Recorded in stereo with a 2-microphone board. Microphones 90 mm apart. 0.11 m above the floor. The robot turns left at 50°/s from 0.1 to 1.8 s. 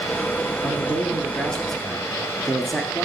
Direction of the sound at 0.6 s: 65° left.